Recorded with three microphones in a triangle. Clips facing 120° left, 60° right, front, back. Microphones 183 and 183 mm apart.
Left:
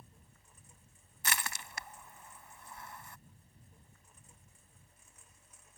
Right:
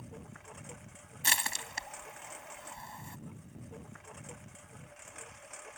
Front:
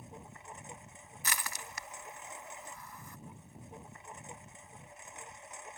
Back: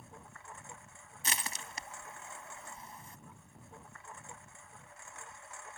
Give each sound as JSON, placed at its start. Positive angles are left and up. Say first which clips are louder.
{"t": 0.0, "sound": "a lawn mower", "louder": "right 15 dB, front 3 dB", "azimuth_deg": -70}
{"t": 1.2, "sound": "crushing", "louder": "right 1 dB, even", "azimuth_deg": -120}